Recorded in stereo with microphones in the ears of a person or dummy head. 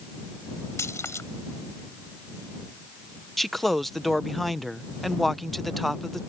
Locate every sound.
0.8 s keys jangling: 15° left (ahead or behind)
3.4 s a man speaking: centre (ahead or behind)